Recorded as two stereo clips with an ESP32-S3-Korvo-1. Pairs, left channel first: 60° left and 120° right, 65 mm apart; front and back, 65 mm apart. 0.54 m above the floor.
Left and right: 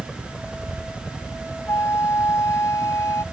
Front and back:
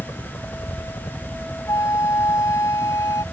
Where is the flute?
25° left.